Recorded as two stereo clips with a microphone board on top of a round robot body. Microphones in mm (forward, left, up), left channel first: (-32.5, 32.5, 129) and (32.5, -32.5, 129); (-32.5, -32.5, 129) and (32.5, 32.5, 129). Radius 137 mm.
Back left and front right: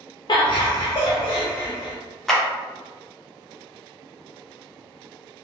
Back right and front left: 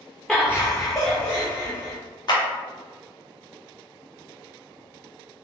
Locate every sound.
0.3 s laughter: 140° left, 0.5 m; by 1.9 s 175° right, 1.5 m
2.3 s a clap: 140° right, 0.9 m